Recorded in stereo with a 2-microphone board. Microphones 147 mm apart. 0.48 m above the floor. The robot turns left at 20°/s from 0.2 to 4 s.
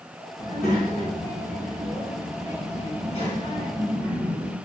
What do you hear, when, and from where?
0.4 s a child speaking: 100° left, 1.9 m; by 4.5 s 30° left, 1.9 m